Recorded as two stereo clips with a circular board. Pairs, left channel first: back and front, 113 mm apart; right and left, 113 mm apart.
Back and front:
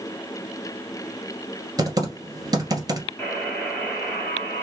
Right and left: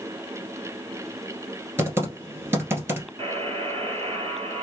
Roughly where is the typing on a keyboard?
Ahead left.